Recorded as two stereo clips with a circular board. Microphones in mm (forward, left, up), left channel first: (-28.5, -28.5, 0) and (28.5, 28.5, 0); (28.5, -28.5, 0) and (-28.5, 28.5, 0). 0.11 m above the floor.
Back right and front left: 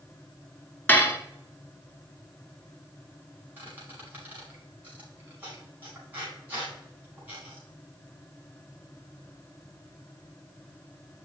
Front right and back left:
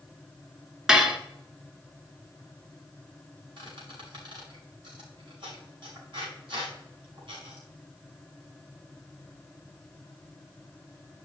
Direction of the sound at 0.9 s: 155° right.